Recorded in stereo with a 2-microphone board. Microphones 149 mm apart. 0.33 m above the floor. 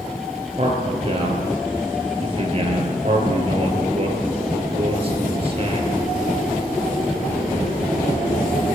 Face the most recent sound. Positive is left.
turn(degrees=-40)  # may be behind; listen again after turning